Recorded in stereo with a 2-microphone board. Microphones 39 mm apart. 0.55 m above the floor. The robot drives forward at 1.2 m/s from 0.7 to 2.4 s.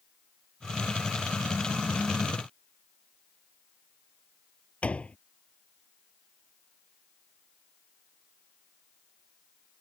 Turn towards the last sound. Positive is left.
turn(degrees=40)  # may be behind; listen again after turning